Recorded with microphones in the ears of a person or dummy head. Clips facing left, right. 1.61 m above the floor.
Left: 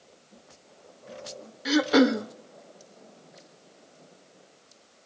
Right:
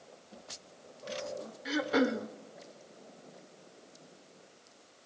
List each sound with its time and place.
1.6 s throat clearing: 65° left (ahead or behind), 0.6 m